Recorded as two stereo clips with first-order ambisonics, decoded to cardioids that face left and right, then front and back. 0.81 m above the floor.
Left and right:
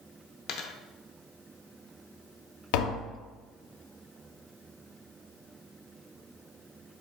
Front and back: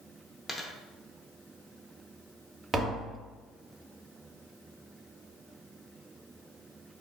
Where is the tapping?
105° left, 0.7 m.